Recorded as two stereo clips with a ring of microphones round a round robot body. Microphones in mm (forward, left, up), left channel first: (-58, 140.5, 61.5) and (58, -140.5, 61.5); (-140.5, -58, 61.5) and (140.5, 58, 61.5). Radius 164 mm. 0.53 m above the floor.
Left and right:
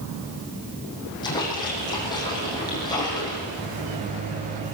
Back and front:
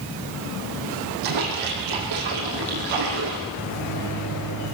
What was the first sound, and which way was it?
A splash, 35° left.